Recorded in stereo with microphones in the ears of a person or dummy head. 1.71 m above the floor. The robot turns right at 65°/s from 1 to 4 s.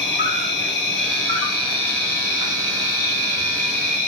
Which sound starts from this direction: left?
An insect, at 0.0 s.